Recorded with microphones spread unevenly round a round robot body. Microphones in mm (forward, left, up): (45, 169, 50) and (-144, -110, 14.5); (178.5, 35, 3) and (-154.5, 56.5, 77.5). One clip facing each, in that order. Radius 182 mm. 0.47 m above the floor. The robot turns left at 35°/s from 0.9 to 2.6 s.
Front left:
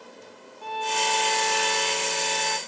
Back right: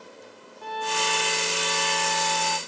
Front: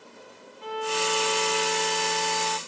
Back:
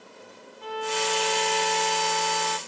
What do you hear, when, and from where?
0.6 s a violin: 175° left; by 2.6 s 120° left